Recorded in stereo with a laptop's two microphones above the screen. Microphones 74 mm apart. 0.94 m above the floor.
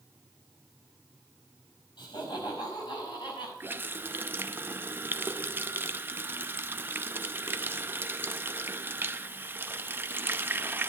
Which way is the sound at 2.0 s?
80° left.